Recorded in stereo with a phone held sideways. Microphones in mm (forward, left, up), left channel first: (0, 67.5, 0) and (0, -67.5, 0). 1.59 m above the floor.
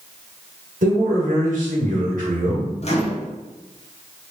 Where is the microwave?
55° left (ahead or behind), 0.7 m.